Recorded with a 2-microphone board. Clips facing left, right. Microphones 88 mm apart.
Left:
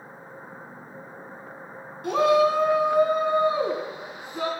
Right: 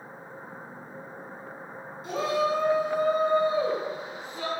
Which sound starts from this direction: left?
A shout, at 2.0 s.